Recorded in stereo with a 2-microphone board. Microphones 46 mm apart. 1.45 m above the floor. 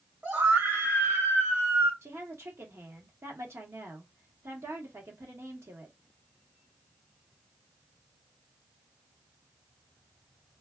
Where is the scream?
40° right (ahead or behind), 2 m; by 1.9 s 60° right (ahead or behind), 2.5 m.